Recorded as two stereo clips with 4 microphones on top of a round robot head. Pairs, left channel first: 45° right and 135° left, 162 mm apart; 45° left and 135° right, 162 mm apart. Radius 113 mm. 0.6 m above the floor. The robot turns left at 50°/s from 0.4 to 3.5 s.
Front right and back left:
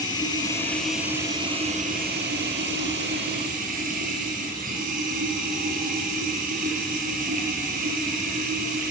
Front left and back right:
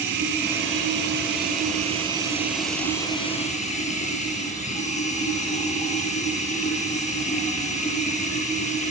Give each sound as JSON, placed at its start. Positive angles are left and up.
{"t": 0.0, "sound": "running water", "azimuth_deg": -110, "distance_m": 7.5}